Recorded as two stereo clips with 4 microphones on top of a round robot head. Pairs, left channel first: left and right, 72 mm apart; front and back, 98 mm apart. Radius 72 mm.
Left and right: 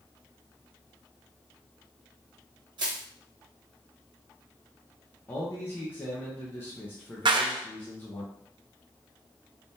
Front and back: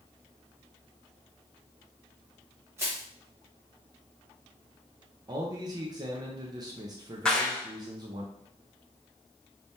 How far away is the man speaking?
About 0.9 m.